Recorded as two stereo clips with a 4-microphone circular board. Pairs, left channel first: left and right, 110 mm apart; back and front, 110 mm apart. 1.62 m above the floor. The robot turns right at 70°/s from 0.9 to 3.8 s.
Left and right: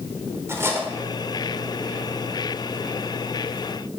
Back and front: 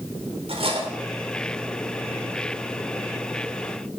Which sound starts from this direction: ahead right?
Cutlery clinking, at 0.5 s.